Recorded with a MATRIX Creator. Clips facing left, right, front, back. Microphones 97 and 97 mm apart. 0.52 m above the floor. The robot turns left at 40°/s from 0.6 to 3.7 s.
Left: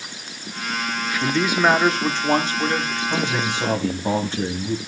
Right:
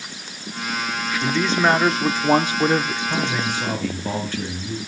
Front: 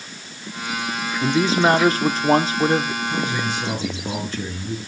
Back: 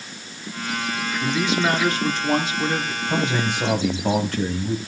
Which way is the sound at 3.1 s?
Straight behind.